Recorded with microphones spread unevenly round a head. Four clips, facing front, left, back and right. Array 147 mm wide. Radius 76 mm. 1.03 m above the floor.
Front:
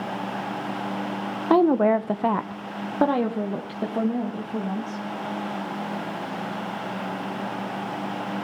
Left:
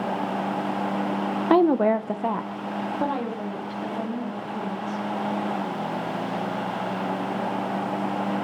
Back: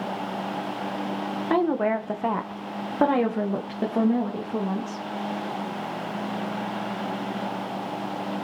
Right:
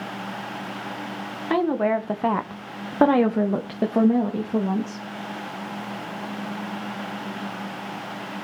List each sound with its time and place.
1.5 s a woman speaking: 60° left, 0.8 m; by 5.0 s 105° right, 1.9 m